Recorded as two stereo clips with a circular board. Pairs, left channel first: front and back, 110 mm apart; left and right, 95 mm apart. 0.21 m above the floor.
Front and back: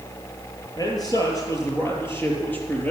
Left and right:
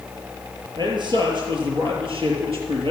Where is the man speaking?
55° right, 4.5 m; by 2.9 s 75° right, 4 m.